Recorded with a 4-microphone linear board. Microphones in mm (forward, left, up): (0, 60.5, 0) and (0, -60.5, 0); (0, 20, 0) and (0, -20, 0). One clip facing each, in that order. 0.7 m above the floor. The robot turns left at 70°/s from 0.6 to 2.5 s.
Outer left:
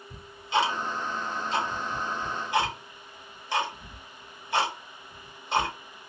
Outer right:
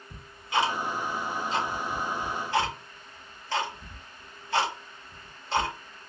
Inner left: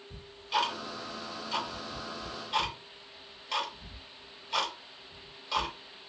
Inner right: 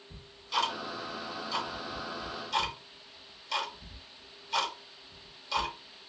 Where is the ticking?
20° left (ahead or behind), 1.3 m; by 6.1 s 15° left (ahead or behind), 1.3 m.